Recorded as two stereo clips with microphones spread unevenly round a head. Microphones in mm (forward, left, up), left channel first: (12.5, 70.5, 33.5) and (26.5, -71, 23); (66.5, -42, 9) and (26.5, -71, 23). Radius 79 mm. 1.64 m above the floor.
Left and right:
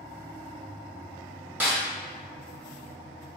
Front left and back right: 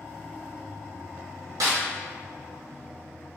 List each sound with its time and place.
1.6 s a snare drum: 165° right, 0.7 m